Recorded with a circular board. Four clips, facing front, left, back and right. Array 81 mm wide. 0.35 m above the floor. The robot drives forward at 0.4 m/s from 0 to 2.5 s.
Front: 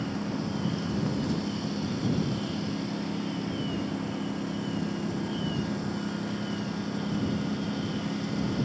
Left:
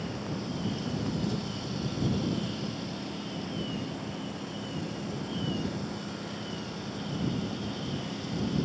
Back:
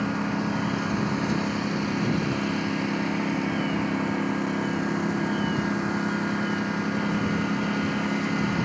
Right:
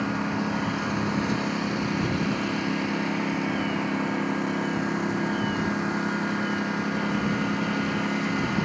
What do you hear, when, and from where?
0.0 s a lawn mower: 125° right; by 8.7 s 130° right